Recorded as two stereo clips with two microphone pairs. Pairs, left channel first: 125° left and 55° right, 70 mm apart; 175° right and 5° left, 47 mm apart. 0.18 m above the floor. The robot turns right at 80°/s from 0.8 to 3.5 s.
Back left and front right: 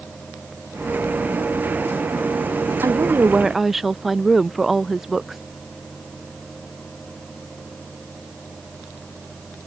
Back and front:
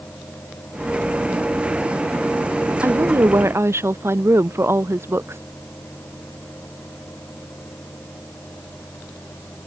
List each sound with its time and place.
2.8 s a woman speaking: 20° right; by 5.4 s 30° left